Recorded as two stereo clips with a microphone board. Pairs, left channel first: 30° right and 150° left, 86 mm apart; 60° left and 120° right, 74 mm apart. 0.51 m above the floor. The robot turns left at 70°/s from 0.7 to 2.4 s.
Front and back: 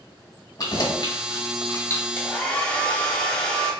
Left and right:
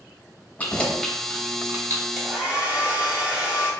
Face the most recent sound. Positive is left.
turn(degrees=-75)